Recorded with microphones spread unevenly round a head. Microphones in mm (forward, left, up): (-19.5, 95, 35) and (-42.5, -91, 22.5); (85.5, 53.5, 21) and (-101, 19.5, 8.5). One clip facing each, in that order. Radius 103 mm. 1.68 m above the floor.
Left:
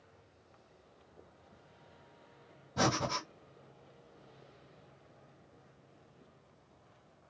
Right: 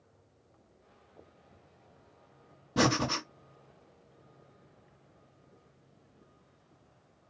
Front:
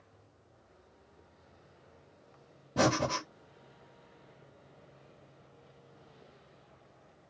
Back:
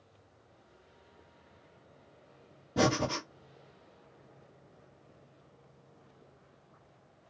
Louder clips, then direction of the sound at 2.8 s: Right 5 dB, even; 85° right.